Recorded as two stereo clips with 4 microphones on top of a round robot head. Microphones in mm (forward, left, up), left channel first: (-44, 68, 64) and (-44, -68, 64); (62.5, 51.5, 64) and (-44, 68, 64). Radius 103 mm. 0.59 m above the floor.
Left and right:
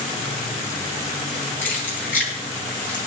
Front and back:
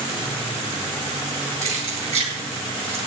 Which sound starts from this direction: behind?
Keys jangling, at 1.6 s.